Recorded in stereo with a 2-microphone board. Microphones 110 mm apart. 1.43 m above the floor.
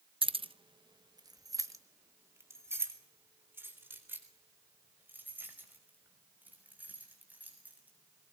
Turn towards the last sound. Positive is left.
turn(degrees=-15)  # may be behind; listen again after turning